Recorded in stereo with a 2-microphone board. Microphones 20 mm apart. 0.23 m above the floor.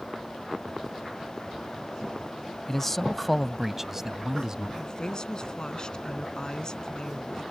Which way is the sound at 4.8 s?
40° left (ahead or behind).